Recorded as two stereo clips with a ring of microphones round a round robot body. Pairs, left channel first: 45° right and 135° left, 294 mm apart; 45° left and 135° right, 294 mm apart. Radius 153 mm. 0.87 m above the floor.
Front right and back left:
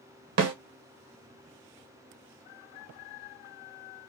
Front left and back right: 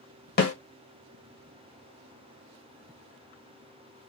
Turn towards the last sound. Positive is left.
turn(degrees=100)